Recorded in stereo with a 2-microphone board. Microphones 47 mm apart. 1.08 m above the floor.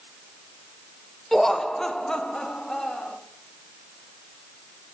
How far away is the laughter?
About 0.5 m.